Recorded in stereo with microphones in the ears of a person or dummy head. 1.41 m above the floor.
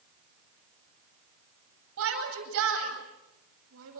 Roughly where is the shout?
Right.